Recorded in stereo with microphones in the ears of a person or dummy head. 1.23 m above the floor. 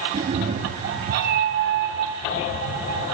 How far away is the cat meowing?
About 1.0 m.